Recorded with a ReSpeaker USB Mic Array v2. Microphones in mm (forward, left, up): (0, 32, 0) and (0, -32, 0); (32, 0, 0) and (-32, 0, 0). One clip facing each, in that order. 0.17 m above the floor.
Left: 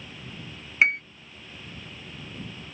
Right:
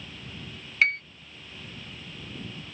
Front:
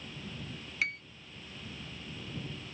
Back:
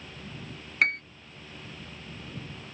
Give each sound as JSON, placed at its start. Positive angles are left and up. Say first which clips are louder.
{"t": 0.8, "sound": "a piano", "louder": "left 2 dB, back 9 dB", "azimuth_deg": 155}